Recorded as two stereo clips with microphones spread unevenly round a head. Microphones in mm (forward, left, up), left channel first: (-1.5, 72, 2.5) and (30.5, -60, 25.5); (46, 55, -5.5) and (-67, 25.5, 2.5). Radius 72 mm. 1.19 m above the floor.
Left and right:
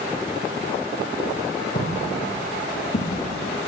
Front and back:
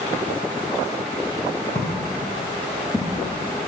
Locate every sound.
1.8 s footsteps: 65° left, 3 m; by 3.2 s 105° left, 3 m